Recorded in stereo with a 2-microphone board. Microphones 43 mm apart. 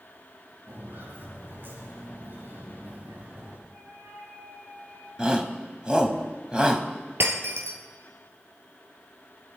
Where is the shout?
20° right (ahead or behind), 2.0 m.